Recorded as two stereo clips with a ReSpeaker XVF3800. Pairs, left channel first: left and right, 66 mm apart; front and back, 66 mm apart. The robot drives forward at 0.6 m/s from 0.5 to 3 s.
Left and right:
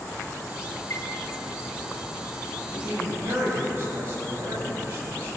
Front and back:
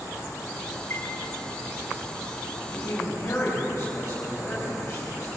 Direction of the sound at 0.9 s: 45° left.